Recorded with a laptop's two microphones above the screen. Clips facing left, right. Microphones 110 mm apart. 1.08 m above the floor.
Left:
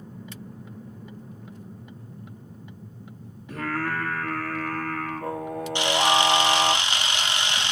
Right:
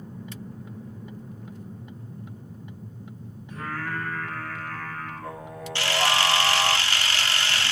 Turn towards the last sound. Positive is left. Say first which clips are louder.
# left 3 dB
turn(degrees=20)  # may be behind; listen again after turning